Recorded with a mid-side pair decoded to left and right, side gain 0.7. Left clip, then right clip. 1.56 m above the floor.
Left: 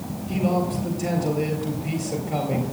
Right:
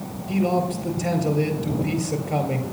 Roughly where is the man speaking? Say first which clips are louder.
Right 2 dB; ahead.